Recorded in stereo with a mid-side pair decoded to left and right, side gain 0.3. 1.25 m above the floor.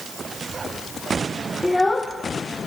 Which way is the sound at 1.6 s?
15° left.